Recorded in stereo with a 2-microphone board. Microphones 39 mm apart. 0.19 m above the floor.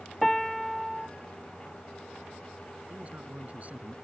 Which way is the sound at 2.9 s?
40° right (ahead or behind).